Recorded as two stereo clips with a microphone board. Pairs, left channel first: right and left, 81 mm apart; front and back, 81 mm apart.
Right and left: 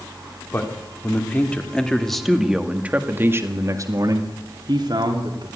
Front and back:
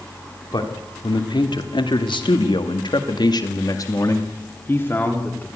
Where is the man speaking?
30° right, 3 m; by 5.5 s 70° left, 2.5 m.